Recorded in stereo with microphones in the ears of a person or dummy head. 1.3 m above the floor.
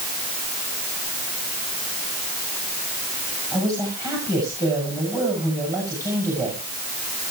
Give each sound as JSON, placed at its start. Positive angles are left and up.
{"t": 3.5, "sound": "a man speaking", "side_deg": -20, "distance_m": 7.0}